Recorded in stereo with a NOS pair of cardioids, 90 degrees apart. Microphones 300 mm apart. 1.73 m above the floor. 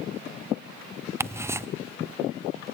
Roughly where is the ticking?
Ahead.